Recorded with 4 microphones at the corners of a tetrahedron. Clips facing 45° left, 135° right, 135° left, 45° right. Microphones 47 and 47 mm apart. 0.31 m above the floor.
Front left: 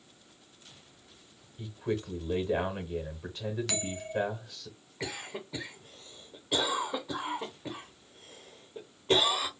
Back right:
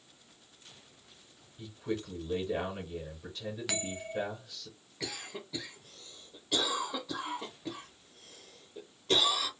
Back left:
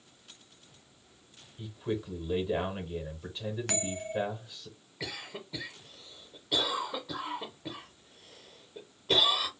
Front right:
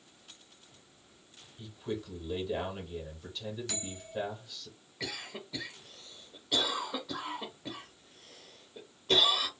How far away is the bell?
About 1.0 m.